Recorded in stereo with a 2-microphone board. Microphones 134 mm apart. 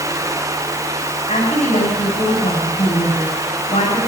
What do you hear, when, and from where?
1.3 s a woman speaking: 60° left (ahead or behind), 8 m